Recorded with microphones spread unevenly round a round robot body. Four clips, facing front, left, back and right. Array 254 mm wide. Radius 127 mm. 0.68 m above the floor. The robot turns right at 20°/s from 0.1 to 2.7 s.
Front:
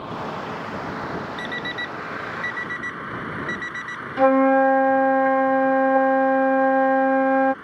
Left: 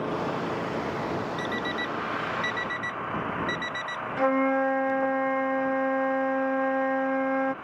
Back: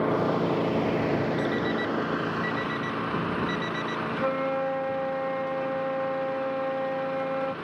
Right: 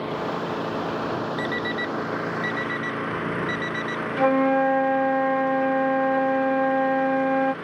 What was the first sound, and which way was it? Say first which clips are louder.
An engine running: right 2 dB, back 6 dB; straight behind.